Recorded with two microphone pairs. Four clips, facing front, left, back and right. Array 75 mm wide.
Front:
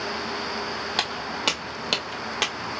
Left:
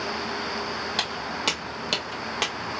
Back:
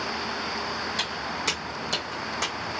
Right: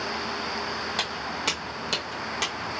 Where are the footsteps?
Straight ahead, 1.3 m; by 2.7 s 60° left, 0.9 m.